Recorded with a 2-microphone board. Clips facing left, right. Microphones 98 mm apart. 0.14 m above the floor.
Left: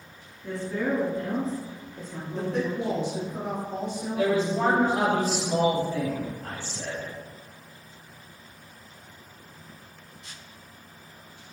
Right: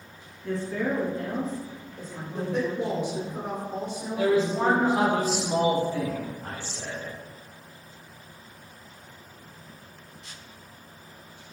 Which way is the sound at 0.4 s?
15° left (ahead or behind).